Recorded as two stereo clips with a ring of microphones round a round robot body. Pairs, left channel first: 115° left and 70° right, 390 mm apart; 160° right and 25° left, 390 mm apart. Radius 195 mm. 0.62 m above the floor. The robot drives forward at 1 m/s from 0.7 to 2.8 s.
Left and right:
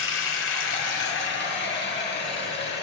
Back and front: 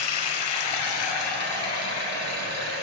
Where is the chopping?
I don't hear chopping.